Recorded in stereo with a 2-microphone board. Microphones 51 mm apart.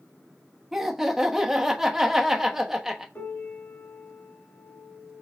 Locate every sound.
0.7 s laughter: 10° right (ahead or behind), 0.9 m
3.1 s a piano: 40° left (ahead or behind), 1.7 m